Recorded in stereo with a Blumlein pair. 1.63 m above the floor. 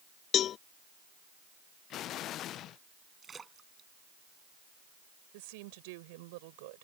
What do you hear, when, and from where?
0.3 s a cowbell: 30° left
1.9 s an explosion: 35° left
3.2 s a splash: 15° right
5.3 s a woman speaking: 50° right